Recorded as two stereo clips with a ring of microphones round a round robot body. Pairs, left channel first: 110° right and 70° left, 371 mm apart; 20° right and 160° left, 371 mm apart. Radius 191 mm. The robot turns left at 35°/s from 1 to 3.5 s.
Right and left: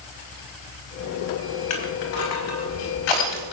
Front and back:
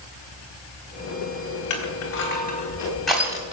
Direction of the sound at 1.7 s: 65° right.